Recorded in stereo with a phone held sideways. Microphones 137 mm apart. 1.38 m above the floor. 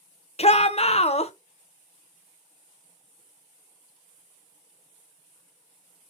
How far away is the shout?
About 0.6 m.